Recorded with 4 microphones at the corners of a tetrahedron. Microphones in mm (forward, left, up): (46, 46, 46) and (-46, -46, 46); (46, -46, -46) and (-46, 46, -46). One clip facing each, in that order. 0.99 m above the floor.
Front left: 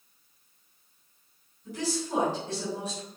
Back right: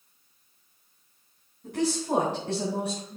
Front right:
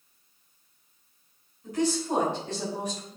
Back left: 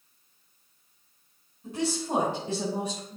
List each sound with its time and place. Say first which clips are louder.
1.6 s a woman speaking: back right 5 dB, front right 3 dB; 145° right, 3.5 m; by 3.2 s 140° right, 4.5 m